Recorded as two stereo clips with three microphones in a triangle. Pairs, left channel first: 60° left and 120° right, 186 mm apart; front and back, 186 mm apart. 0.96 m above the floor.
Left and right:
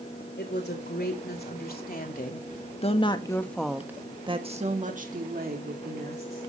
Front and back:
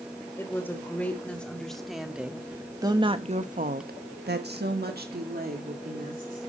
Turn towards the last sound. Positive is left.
turn(degrees=-140)